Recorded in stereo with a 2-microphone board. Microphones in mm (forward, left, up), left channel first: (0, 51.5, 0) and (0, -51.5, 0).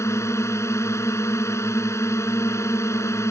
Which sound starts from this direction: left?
A drone, at 0.0 s.